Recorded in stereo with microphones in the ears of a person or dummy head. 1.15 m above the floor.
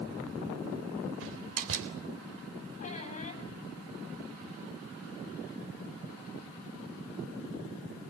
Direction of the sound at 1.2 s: 80° right.